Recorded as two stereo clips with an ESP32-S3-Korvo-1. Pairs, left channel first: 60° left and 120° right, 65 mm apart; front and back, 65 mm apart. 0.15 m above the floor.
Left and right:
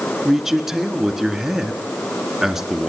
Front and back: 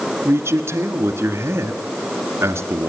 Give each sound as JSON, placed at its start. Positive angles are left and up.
{"t": 0.2, "sound": "a man speaking", "azimuth_deg": 160, "distance_m": 1.6}